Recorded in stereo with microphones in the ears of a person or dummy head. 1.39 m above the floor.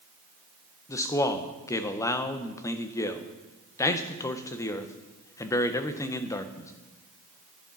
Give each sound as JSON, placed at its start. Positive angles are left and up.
{"t": 0.9, "sound": "a man speaking", "side_deg": 20, "distance_m": 0.7}